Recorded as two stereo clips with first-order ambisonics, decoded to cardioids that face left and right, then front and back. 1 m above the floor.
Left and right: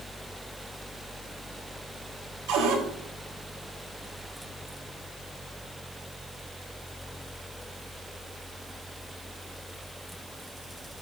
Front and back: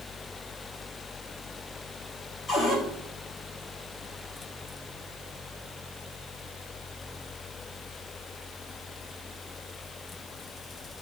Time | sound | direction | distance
2.5 | a cupboard door | 90° right | 3 m